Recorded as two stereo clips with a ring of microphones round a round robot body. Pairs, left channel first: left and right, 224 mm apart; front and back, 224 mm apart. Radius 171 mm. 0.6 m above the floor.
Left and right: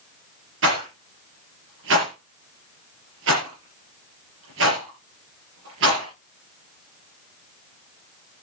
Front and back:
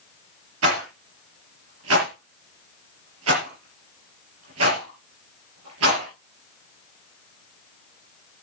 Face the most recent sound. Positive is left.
turn(degrees=-140)